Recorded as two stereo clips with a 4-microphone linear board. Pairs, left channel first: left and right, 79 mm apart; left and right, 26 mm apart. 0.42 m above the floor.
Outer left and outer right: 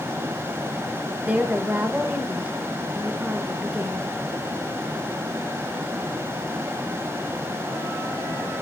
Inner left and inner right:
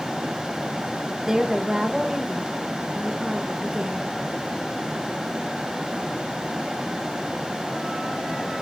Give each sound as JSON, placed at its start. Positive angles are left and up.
{"t": 1.2, "sound": "a woman speaking", "side_deg": -20, "distance_m": 1.7}